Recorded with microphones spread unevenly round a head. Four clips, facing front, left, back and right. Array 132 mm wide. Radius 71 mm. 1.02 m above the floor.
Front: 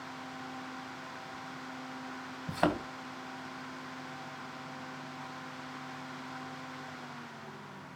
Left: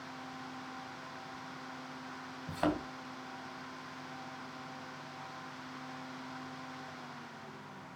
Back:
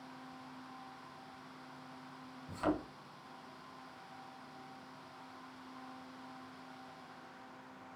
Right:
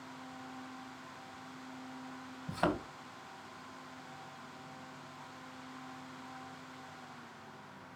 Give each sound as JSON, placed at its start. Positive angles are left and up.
{"t": 2.5, "sound": "a thud", "azimuth_deg": 0, "distance_m": 3.0}